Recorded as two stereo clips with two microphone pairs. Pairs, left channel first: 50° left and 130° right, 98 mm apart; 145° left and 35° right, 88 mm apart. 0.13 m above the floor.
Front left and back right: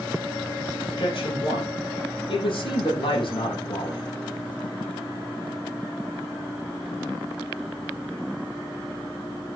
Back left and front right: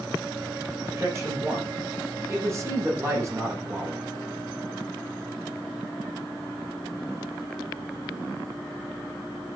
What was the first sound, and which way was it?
A man speaking, 20° left.